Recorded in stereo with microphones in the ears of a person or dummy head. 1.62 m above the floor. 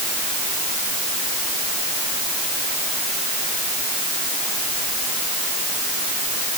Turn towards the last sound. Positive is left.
No sound to turn to.